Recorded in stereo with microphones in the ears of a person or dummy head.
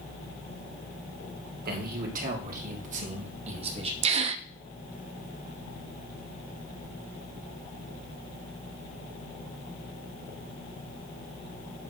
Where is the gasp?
35° right (ahead or behind), 0.6 m.